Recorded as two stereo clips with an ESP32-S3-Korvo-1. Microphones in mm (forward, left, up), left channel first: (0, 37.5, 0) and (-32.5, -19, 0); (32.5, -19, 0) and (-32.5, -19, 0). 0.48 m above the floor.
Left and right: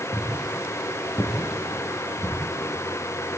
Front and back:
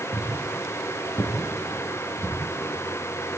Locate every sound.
0.1 s footsteps: 15° left, 6 m; by 2.4 s 25° left, 7 m